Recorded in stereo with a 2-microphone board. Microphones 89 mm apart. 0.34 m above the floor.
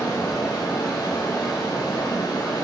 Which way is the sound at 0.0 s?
55° left (ahead or behind).